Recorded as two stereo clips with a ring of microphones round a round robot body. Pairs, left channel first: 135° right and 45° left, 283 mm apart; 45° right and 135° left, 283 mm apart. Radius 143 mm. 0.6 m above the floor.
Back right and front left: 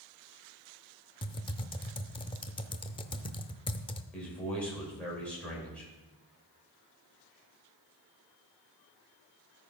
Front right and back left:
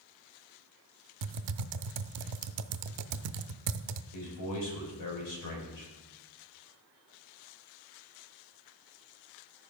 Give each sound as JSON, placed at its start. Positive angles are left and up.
{"t": 1.2, "sound": "typing on a keyboard", "azimuth_deg": 150, "distance_m": 0.6}
{"t": 4.1, "sound": "a man speaking", "azimuth_deg": -50, "distance_m": 3.5}